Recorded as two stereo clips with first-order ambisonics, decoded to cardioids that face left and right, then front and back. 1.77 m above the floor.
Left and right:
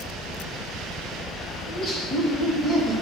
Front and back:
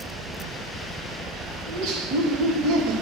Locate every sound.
1.7 s laughter: 155° left, 2.5 m